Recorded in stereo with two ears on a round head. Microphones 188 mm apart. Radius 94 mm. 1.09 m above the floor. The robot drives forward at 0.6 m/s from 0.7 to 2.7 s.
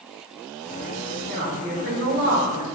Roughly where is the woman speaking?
Right.